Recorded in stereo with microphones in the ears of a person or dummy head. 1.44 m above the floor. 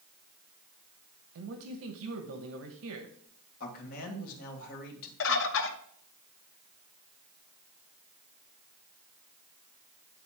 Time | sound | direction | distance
1.4 | a man speaking | 75° right (ahead or behind) | 1.1 m
3.6 | a man speaking | 55° left (ahead or behind) | 2.0 m
5.2 | a bird | 70° left (ahead or behind) | 1.0 m